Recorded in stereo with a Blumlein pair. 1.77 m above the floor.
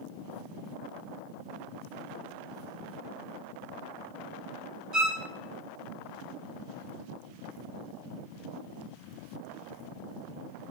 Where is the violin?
35° right, 3 m.